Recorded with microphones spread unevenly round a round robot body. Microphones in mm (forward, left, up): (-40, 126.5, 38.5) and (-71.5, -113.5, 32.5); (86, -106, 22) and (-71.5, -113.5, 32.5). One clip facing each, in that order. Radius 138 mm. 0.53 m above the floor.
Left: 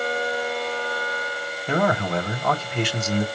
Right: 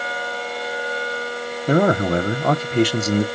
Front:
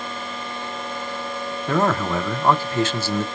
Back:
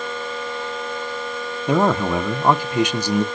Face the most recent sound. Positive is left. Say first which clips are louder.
# right 6 dB, back 3 dB
turn(degrees=-105)